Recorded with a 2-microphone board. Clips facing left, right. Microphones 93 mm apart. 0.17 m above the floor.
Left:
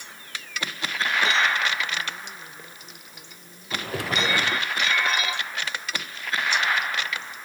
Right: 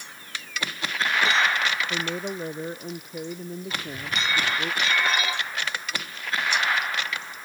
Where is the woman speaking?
70° right (ahead or behind).